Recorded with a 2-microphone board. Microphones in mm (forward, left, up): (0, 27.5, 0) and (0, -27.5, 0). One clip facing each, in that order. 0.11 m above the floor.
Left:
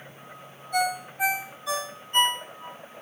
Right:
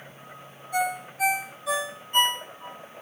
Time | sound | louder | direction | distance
0.7 | a ringtone | left 1 dB | 5° right (ahead or behind) | 2.5 m